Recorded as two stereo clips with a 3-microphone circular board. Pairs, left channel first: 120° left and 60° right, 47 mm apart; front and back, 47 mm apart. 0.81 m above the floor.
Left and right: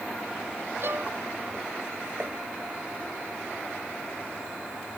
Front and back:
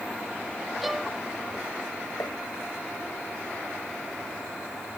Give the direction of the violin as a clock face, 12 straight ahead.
3 o'clock.